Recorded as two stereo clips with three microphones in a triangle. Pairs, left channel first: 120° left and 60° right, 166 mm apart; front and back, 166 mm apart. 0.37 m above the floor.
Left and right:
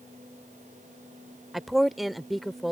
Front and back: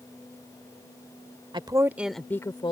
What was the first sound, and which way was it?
A woman speaking, 150° right.